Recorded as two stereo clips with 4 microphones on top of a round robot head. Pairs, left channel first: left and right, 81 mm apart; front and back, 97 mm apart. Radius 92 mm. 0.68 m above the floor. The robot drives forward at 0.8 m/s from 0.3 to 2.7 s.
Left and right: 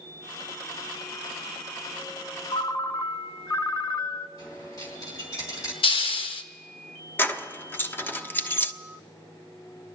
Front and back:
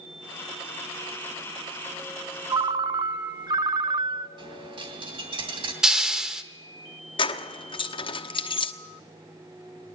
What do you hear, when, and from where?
2.5 s a ringtone: 125° left, 0.5 m; by 4.3 s 140° left, 0.7 m
4.4 s a dropped coin: 145° left, 3 m
5.8 s a hiss: 95° left, 1.1 m
7.2 s keys jangling: 25° left, 1.1 m